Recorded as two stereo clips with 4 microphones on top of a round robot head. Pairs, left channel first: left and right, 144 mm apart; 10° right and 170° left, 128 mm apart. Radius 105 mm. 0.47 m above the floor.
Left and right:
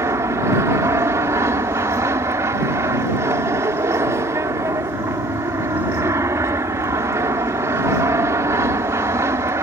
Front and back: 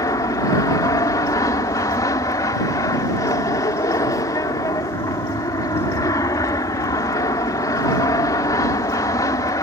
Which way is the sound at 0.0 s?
40° right.